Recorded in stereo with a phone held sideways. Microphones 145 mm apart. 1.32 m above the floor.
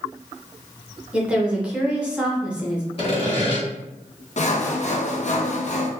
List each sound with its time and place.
1.1 s a woman speaking: 10° right (ahead or behind), 1.0 m
3.0 s sawing: 40° left (ahead or behind), 1.7 m
4.4 s sawing: 55° left (ahead or behind), 0.5 m